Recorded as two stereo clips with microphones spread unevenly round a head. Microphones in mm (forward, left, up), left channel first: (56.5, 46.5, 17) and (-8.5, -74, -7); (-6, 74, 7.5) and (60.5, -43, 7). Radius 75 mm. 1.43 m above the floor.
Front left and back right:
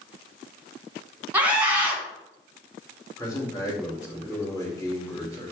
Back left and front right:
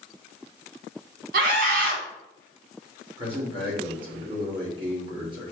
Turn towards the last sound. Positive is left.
turn(degrees=-5)